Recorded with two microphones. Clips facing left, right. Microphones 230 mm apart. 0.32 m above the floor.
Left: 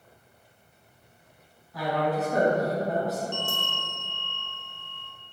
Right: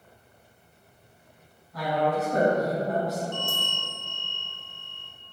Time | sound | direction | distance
1.7 | a woman speaking | centre (ahead or behind) | 1.2 m
3.3 | a bell | 40° right (ahead or behind) | 0.5 m